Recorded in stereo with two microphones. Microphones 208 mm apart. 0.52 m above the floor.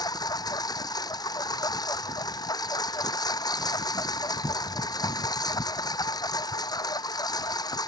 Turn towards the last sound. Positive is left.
turn(degrees=20)  # may be behind; listen again after turning